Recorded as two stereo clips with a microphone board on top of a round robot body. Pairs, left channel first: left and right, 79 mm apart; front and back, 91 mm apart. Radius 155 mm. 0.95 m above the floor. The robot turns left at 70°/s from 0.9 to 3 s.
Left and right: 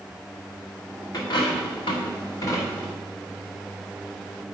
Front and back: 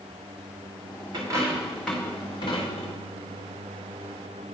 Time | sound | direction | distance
1.1 | a dropped coin | 135° left | 1.4 m